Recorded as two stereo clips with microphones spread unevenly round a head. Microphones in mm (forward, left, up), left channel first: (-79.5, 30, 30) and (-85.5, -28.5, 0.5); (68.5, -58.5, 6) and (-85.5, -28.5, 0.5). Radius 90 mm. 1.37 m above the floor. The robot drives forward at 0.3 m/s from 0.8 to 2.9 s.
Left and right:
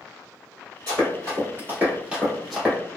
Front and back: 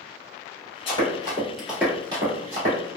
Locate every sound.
0.9 s running footsteps: 45° right, 1.7 m; by 2.8 s 145° left, 2 m